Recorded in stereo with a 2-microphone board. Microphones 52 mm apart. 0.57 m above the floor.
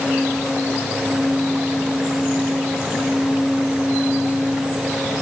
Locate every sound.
Only background noise.